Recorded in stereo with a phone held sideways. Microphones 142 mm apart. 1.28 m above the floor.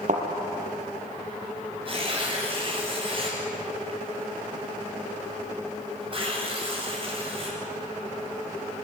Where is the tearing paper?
40° right (ahead or behind), 8 m.